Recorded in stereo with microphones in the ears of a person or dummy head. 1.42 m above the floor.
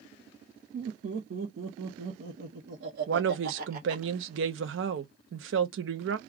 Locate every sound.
0.7 s laughter: 50° right (ahead or behind), 1.1 m; by 4.1 s 40° right (ahead or behind), 1.5 m
3.1 s a woman speaking: 65° right (ahead or behind), 0.7 m